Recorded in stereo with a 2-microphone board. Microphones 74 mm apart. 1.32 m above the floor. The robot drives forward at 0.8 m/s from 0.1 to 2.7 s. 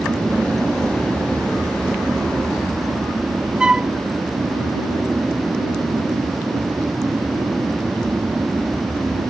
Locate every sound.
0.0 s an aircraft: 30° right (ahead or behind)
3.6 s a flute: 15° right (ahead or behind)